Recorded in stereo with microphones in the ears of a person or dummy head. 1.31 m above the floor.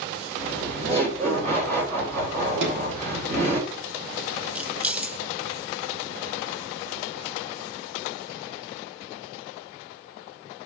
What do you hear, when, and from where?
0.4 s laughter: 40° right (ahead or behind), 4.5 m
2.6 s a sliding door: 80° right, 3 m
4.5 s keys jangling: 5° right (ahead or behind), 0.6 m